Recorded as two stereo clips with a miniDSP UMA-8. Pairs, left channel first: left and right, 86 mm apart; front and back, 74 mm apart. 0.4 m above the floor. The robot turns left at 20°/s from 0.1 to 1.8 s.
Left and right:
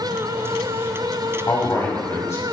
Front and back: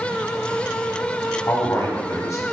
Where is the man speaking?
45° left, 2 m; by 2.4 s 35° left, 2 m.